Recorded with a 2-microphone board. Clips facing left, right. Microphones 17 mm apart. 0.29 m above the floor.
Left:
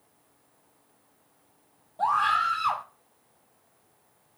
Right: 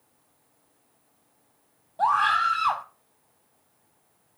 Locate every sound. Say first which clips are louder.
2.0 s a scream: right 2 dB; 20° right (ahead or behind), 1.7 m